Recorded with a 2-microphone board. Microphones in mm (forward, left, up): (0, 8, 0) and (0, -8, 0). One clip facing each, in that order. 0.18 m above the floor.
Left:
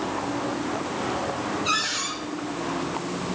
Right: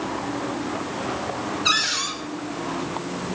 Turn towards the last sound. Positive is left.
turn(degrees=-40)  # may be behind; listen again after turning